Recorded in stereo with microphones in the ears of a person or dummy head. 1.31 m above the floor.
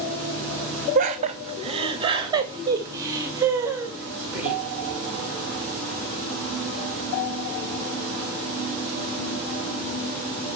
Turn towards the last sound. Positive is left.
turn(degrees=-10)  # may be behind; listen again after turning